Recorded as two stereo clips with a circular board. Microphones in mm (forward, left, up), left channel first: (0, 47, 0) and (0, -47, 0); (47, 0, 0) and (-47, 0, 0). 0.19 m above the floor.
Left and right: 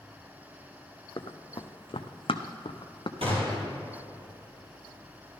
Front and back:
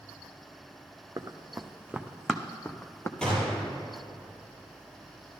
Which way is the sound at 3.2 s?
80° right.